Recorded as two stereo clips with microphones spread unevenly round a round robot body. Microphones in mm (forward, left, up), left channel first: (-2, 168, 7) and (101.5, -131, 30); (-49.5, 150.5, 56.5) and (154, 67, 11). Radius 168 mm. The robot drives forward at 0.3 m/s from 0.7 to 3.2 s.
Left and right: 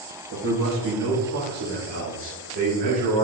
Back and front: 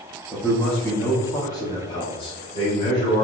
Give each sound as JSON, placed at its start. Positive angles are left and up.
{"t": 0.3, "sound": "a man speaking", "azimuth_deg": -105, "distance_m": 1.3}